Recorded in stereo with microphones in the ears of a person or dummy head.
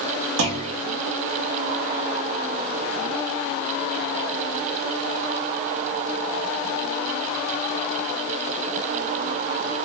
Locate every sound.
0.4 s a clunk: 85° right, 2 m